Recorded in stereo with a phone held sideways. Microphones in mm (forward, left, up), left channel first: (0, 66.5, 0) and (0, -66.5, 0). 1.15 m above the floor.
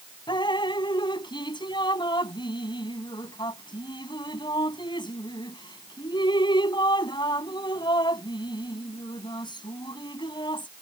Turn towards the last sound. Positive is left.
turn(degrees=35)  # may be behind; listen again after turning